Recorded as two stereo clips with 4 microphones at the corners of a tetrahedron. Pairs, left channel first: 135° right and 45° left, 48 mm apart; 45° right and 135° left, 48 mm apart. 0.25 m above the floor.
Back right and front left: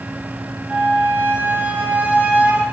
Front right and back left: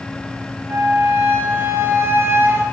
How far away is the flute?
About 1.2 m.